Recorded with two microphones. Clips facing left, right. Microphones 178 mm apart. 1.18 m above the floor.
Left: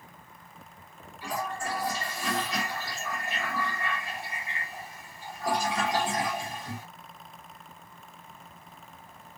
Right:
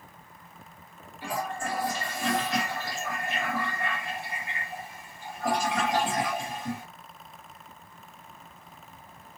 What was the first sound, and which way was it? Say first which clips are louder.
A toilet flushing: right 1 dB; 50° right (ahead or behind).